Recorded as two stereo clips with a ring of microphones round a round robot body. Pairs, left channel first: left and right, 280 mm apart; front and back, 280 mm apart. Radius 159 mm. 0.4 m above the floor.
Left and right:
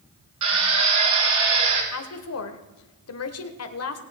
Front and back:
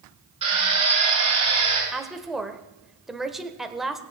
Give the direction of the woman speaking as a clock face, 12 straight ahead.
9 o'clock.